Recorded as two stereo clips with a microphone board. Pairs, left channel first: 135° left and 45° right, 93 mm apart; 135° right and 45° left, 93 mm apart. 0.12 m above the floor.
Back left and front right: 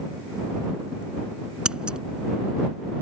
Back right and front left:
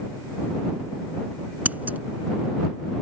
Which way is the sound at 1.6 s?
15° left.